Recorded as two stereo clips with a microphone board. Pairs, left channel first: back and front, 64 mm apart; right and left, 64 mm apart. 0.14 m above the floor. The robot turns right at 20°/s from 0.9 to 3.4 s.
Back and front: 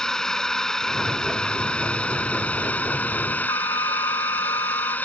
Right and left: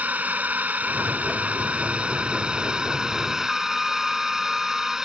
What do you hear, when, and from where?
0.0 s a drone: 110° left; by 5.1 s 160° left
3.5 s a flute: straight behind